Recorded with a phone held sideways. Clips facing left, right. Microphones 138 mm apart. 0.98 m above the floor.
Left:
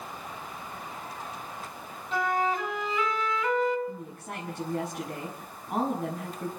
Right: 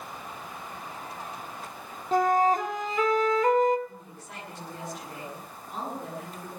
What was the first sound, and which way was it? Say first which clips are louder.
A flute: right 5 dB; 45° right (ahead or behind).